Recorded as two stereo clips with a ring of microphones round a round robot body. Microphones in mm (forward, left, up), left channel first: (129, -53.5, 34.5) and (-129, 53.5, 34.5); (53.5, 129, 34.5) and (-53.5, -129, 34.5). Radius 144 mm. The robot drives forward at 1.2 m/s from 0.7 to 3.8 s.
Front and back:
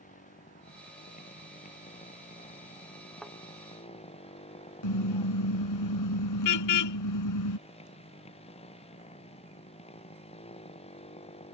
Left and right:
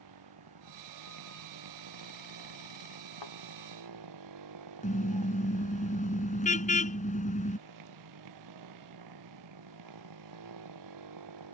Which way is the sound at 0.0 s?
85° right.